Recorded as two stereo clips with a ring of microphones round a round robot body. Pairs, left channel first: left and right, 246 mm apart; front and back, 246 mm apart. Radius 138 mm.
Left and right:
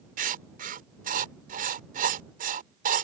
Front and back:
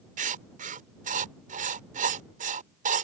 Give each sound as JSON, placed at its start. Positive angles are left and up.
{"t": 0.2, "sound": "writing", "azimuth_deg": -135}